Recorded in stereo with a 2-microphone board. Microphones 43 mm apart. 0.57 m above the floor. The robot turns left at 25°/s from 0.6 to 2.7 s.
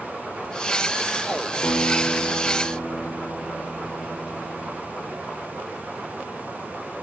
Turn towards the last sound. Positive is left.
turn(degrees=60)  # may be behind; listen again after turning